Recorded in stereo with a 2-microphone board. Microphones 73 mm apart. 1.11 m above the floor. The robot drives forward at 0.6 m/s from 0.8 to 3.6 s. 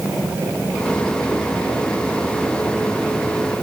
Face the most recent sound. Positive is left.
No sound to turn to.